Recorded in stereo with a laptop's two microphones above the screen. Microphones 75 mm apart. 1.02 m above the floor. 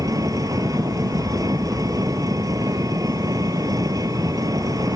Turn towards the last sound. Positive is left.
turn(degrees=-50)  # may be behind; listen again after turning